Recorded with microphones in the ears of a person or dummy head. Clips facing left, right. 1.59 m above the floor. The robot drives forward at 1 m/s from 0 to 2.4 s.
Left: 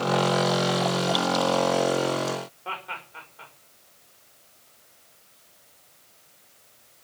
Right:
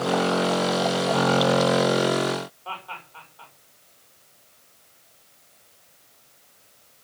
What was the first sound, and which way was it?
Laughter, 30° left (ahead or behind).